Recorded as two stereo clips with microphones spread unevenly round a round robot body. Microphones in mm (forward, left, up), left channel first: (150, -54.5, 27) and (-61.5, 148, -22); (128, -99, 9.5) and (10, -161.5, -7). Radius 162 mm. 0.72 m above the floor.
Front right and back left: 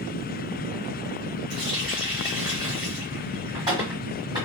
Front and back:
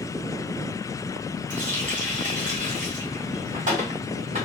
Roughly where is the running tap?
Behind right.